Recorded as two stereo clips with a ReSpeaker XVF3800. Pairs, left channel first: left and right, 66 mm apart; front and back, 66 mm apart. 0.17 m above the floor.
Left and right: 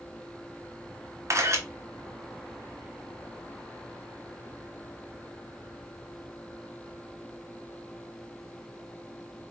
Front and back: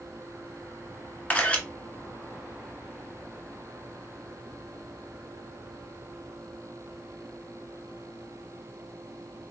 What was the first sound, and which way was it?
A camera shutter, 65° right.